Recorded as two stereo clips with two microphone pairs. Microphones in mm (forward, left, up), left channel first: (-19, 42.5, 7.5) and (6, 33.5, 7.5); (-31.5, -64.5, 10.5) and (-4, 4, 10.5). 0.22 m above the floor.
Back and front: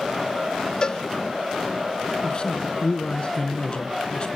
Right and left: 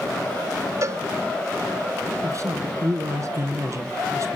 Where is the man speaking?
110° left, 2.5 m.